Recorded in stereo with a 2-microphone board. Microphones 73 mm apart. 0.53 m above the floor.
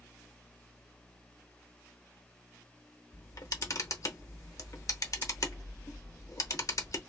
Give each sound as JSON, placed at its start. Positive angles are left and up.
{"t": 3.1, "sound": "a camera shutter", "side_deg": 50, "distance_m": 0.7}